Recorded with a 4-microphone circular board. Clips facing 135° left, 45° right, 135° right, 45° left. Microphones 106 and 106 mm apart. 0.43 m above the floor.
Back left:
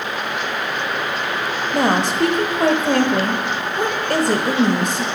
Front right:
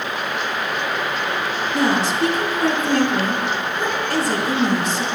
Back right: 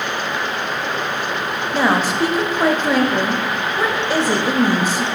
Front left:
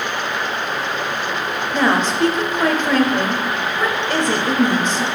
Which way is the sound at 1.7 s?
145° left.